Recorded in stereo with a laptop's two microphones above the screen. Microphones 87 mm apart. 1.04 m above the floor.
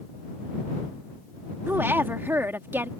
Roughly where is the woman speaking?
Right.